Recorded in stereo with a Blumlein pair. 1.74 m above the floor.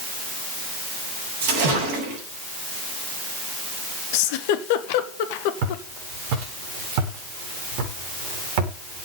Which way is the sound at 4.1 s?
50° left.